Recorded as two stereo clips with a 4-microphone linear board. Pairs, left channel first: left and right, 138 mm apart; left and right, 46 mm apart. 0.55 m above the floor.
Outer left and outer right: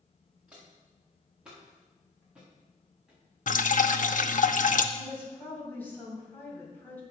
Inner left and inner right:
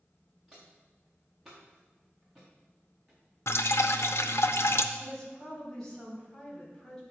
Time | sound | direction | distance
0.5 | footsteps | 5° right (ahead or behind) | 3.5 m
3.5 | dripping | 70° left (ahead or behind) | 0.5 m
5.0 | a woman speaking | 15° left (ahead or behind) | 3 m